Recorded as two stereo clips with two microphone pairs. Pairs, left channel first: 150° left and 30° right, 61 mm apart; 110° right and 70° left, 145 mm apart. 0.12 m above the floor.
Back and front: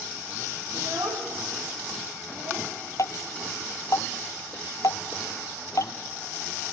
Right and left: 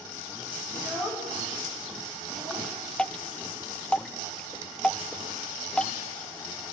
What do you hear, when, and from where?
0.7 s a child speaking: 20° right, 6 m; by 2.7 s straight ahead, 8 m
3.0 s dripping: 165° left, 0.6 m